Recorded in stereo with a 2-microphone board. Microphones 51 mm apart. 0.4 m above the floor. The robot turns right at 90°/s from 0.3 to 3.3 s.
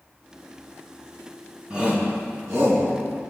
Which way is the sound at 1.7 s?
20° right (ahead or behind).